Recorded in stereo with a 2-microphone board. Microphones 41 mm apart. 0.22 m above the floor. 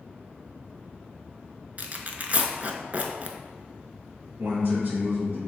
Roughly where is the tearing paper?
Right.